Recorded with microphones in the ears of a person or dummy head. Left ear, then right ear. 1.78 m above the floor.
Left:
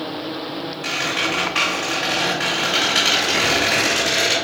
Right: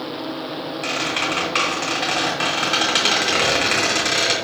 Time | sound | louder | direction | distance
0.8 | a squeak | left 1 dB | 25° right (ahead or behind) | 1.5 m